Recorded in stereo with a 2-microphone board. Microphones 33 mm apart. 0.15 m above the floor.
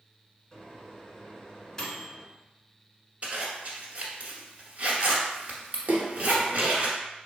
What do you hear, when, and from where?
0.5 s a microwave: 20° left (ahead or behind), 1.0 m
3.2 s a zipper: 45° right (ahead or behind), 1.1 m
5.9 s a splash: 65° right (ahead or behind), 0.6 m